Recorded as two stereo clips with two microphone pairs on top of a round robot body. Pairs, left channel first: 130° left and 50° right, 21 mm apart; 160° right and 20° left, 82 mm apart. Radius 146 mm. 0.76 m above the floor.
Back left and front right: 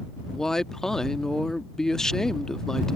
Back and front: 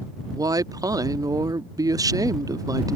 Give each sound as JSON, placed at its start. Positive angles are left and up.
{"t": 0.3, "sound": "a woman speaking", "azimuth_deg": 65}